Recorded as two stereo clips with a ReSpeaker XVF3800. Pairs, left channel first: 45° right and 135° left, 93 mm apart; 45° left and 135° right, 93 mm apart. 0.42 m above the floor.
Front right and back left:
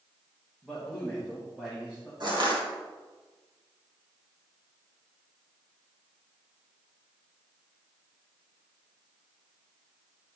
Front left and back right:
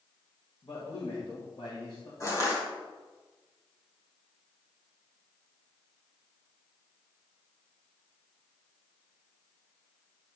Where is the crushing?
100° left, 3 m.